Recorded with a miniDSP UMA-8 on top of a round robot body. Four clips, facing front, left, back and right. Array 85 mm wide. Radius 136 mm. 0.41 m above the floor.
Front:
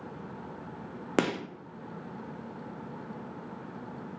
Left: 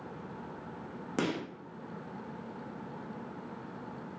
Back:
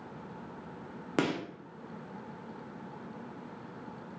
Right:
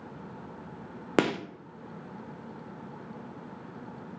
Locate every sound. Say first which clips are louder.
1.2 s a gunshot: right 7 dB, front 2 dB; 70° right, 0.6 m